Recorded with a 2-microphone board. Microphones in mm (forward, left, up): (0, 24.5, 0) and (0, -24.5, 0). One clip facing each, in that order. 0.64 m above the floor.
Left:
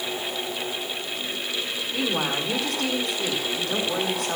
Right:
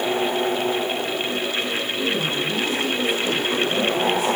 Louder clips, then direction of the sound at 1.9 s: Left 1 dB; 60° left (ahead or behind).